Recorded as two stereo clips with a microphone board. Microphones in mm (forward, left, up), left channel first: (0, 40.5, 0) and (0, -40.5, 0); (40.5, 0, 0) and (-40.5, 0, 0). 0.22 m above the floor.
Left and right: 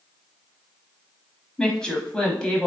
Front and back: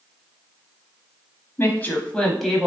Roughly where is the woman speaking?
Ahead.